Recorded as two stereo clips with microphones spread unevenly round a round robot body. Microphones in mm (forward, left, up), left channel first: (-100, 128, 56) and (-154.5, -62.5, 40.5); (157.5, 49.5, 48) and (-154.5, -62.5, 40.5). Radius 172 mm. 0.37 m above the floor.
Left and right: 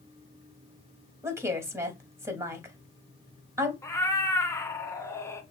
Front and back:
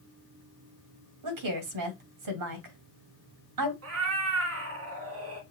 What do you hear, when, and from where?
1.2 s a woman speaking: straight behind, 2.5 m
3.8 s a cat meowing: 150° left, 1.8 m